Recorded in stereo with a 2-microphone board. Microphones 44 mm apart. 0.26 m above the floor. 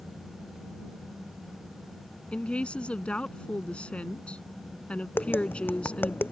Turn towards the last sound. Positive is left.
turn(degrees=50)  # may be behind; listen again after turning